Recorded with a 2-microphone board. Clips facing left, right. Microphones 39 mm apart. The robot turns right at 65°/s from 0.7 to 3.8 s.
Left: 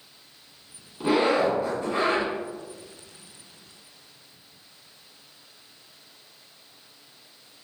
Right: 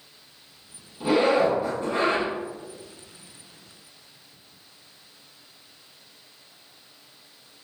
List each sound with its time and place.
1.0 s a zipper: 155° left, 1.8 m; by 2.3 s 120° right, 1.8 m